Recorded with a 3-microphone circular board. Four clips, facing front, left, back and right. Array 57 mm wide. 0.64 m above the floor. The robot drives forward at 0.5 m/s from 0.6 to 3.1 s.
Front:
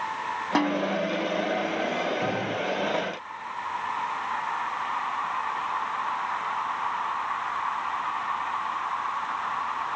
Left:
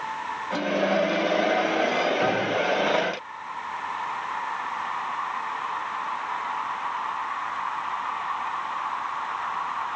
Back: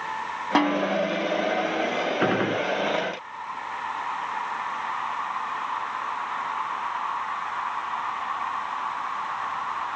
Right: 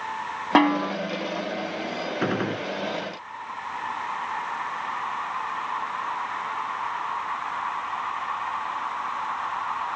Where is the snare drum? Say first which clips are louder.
Right 5 dB, back 3 dB; 105° right.